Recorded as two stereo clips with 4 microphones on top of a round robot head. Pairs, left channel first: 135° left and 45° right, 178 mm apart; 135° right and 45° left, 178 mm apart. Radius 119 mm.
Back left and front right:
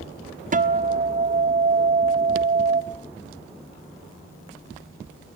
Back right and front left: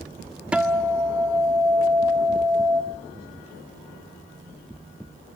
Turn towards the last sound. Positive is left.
turn(degrees=-40)